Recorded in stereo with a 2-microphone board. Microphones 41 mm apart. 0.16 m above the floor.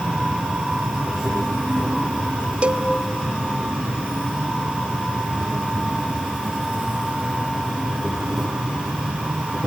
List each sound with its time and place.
0.0 s an insect: 5° right (ahead or behind), 2.5 m
2.6 s a cowbell: 35° right (ahead or behind), 0.5 m